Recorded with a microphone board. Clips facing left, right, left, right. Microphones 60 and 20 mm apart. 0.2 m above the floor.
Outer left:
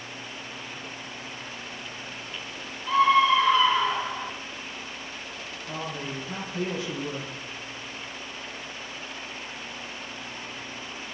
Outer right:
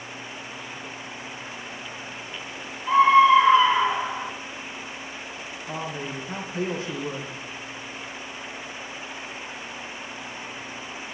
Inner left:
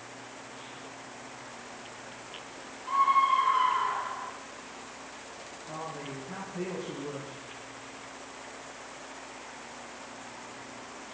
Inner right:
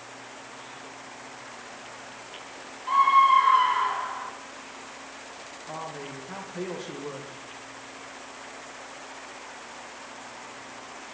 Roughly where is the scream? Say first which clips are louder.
Outer right 5 dB, inner right 6 dB; right.